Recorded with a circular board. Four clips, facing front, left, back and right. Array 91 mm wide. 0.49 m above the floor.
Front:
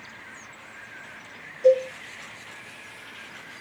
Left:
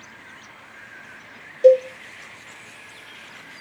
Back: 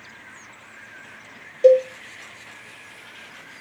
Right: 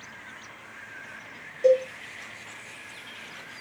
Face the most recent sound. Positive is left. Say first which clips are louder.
# left 7 dB, back 5 dB
turn(degrees=155)